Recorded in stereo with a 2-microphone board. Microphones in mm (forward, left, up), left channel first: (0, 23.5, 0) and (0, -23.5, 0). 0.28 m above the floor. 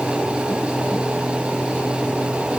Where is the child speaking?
I don't hear a child speaking.